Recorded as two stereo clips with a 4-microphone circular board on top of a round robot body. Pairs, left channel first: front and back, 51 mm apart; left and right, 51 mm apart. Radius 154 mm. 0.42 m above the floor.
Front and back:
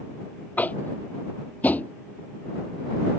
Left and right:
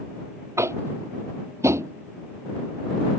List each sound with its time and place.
0.6 s tapping: 60° right